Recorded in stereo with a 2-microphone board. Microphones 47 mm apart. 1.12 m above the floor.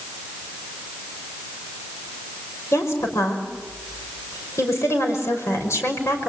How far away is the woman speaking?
About 5.5 m.